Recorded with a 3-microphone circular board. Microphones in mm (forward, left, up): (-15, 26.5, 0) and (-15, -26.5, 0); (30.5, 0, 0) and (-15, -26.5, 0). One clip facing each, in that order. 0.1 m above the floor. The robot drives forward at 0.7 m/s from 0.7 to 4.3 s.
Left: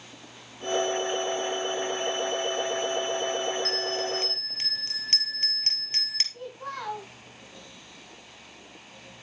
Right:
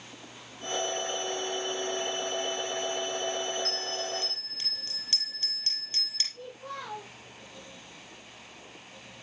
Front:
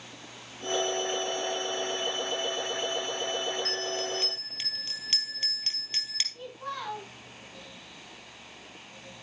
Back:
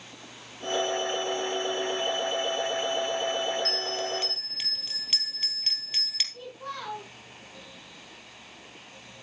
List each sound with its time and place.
3.6 s a bell: 110° left, 2.0 m; by 6.2 s 125° left, 2 m
6.3 s a child speaking: 120° left, 2.5 m